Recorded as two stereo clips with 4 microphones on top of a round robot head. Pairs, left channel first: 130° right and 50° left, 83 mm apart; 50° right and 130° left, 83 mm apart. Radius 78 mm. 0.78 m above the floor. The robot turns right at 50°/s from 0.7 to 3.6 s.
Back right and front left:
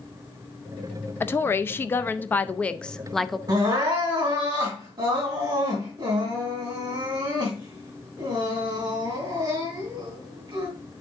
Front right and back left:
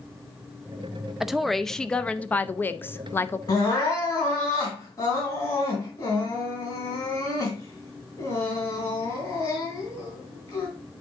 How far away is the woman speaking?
About 0.5 m.